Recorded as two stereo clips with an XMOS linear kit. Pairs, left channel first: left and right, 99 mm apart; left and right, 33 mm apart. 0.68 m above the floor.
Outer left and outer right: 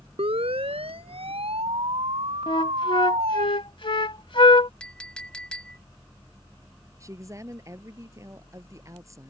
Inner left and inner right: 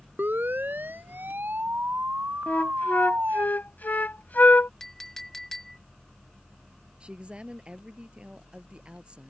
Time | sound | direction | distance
0.2 | a siren | 80° right | ?
2.5 | a flute | 60° left (ahead or behind) | ?
4.8 | a clink | 10° left (ahead or behind) | ?
7.0 | a woman speaking | 35° right (ahead or behind) | ?